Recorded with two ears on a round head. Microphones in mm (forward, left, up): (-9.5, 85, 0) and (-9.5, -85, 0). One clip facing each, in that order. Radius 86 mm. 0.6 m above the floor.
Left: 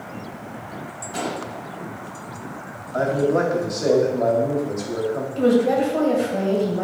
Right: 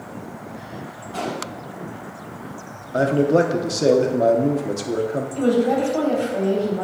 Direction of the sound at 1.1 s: 20° left (ahead or behind).